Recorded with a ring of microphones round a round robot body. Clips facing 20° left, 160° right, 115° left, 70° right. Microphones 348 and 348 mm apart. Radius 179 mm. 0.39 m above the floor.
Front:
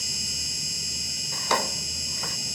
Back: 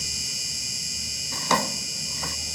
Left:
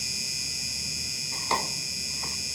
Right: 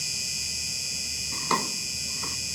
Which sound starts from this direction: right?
An insect, at 0.0 s.